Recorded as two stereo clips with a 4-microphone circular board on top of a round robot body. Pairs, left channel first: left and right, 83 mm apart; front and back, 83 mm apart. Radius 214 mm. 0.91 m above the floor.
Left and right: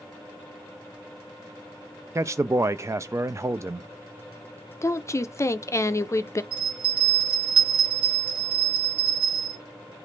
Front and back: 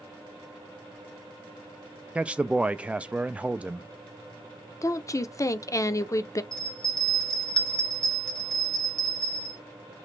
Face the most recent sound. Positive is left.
turn(degrees=-80)